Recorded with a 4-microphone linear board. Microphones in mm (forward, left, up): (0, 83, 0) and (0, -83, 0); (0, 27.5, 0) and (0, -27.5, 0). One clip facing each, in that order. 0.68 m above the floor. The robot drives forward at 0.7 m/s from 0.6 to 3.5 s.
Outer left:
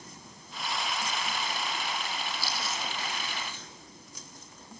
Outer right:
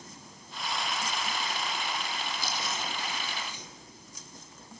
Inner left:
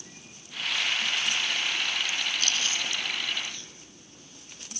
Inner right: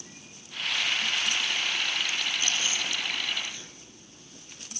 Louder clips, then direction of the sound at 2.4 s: Even, even; 20° right (ahead or behind).